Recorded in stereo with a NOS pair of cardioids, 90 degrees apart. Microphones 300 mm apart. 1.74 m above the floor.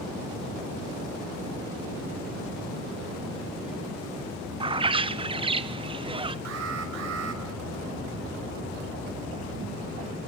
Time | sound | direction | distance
4.6 | a bird | 15° right | 1.2 m
6.5 | an alarm | 60° right | 6.5 m